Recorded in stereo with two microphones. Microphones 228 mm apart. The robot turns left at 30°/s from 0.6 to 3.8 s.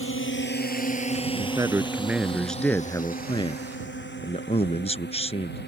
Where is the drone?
65° left (ahead or behind); by 5.7 s 45° left (ahead or behind).